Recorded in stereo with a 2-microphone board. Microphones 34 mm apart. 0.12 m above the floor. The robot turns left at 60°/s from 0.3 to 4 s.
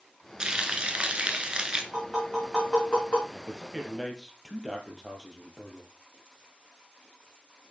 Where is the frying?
45° right, 1.1 m; by 1.8 s 130° right, 1.1 m.